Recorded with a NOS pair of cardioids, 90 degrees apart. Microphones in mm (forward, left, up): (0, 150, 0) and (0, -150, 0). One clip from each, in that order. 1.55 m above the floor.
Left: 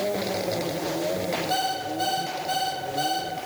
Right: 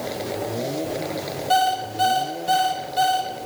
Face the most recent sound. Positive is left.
turn(degrees=-50)